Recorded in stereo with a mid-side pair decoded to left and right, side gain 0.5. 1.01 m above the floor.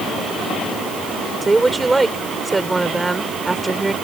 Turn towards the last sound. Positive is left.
turn(degrees=-20)